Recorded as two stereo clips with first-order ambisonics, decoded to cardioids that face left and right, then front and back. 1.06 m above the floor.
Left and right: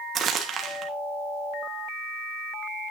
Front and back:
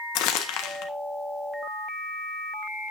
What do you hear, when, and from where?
0.1 s crumpling: 30° right, 1.5 m